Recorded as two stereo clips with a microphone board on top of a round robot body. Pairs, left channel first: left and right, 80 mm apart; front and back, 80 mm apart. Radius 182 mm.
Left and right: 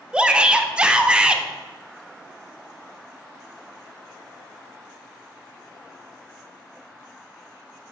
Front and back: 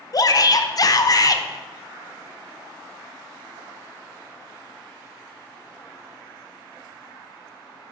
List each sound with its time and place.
0.1 s a shout: 15° right, 0.5 m